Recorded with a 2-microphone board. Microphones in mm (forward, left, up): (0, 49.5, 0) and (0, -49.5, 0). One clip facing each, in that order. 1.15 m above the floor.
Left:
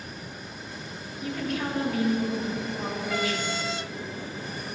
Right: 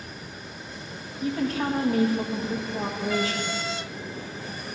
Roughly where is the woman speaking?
Right.